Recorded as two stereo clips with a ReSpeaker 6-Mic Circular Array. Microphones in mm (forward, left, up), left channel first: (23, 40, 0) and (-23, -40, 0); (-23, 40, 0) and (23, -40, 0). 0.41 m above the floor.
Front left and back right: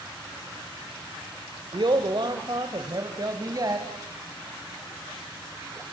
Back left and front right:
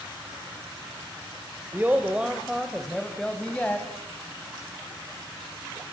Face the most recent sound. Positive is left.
turn(degrees=-165)